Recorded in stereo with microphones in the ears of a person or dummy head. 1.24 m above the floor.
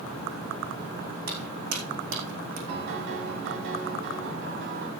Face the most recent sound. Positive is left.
turn(degrees=-60)  # may be behind; listen again after turning